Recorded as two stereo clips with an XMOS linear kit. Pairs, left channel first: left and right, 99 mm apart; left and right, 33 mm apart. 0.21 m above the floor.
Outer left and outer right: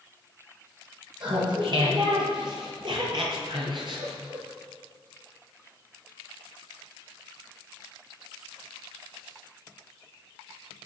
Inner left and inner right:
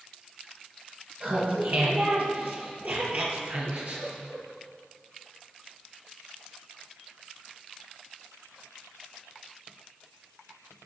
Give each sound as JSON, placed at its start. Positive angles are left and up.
{"t": 1.2, "sound": "laughter", "side_deg": -50, "distance_m": 6.5}